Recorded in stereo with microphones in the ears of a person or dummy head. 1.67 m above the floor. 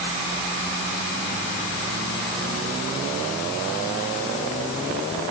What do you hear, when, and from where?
Only background noise.